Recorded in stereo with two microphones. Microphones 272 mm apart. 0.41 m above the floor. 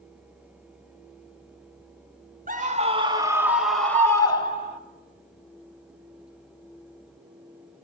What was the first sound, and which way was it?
A scream, 30° right (ahead or behind).